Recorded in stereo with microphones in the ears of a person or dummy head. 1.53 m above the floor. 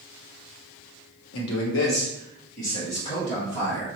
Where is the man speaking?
75° left (ahead or behind), 0.9 m; by 3.9 s 25° left (ahead or behind), 2.5 m.